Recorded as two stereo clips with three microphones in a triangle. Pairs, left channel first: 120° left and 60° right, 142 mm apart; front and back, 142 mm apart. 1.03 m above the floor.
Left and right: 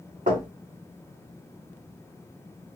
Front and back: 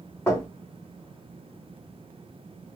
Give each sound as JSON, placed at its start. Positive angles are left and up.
{"t": 0.3, "sound": "knocking", "azimuth_deg": -75, "distance_m": 1.7}